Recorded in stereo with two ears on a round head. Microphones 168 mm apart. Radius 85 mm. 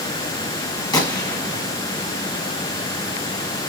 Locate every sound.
0.9 s a gunshot: 20° left (ahead or behind), 1.5 m